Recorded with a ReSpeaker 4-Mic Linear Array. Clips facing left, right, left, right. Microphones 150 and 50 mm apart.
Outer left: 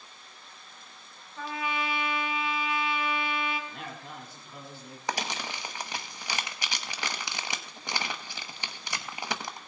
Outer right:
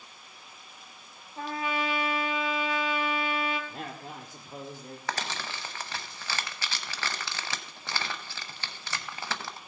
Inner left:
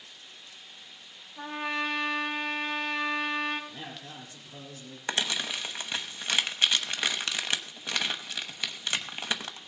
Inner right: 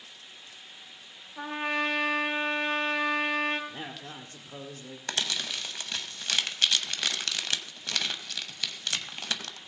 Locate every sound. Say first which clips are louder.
1.4 s a trumpet: outer right 2 dB, inner right 2 dB; 40° right (ahead or behind), 1.7 m
3.7 s a man speaking: outer right 2 dB, inner right 2 dB; 45° right (ahead or behind), 1.8 m
5.1 s crumpling: outer left 2 dB, inner left 2 dB; 15° left (ahead or behind), 1.0 m